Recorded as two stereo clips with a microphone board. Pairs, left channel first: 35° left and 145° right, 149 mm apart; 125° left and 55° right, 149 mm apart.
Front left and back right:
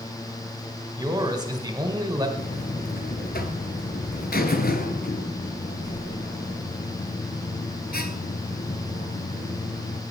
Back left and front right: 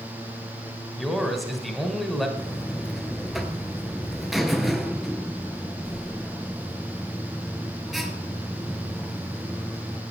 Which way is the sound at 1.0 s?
145° right.